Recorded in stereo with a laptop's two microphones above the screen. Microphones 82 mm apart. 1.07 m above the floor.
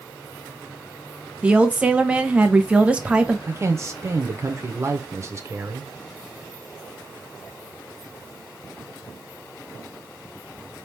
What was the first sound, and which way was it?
A woman speaking, 15° right (ahead or behind).